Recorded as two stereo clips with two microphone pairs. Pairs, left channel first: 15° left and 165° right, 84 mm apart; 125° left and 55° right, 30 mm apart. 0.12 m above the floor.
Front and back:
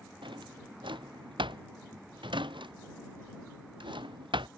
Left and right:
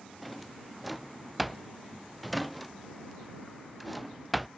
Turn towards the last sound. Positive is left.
turn(degrees=-145)